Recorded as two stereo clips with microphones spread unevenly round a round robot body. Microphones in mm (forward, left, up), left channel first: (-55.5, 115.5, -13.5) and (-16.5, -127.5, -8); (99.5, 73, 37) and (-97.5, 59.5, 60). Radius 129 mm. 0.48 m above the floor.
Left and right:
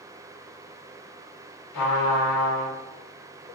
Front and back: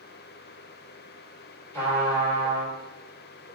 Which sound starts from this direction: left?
A trumpet, at 1.7 s.